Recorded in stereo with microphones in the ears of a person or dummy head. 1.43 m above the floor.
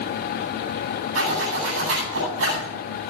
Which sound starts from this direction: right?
A zipper, at 1.1 s.